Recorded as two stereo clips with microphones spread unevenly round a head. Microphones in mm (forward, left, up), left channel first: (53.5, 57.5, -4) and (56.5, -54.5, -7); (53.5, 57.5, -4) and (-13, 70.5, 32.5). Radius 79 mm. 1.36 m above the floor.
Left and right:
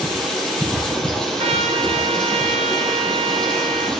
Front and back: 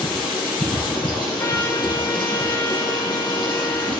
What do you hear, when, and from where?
0.0 s running water: 5° left, 6 m
1.4 s a trumpet: 65° right, 0.8 m